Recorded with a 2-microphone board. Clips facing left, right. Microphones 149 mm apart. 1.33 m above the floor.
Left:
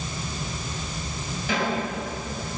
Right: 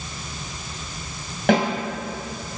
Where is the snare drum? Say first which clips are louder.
Right 9 dB; 70° right (ahead or behind), 7 m.